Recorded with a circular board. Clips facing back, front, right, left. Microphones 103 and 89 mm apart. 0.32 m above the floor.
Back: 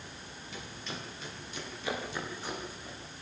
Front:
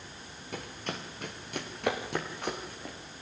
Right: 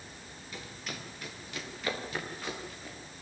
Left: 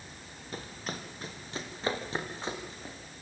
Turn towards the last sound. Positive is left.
turn(degrees=25)